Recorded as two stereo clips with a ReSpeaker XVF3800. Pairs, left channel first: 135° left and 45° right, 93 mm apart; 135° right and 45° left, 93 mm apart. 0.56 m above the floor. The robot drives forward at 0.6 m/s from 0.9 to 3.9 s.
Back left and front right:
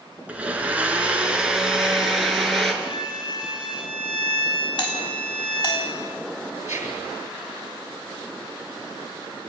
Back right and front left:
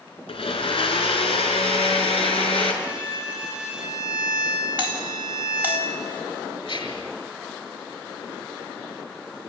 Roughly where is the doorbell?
Behind left.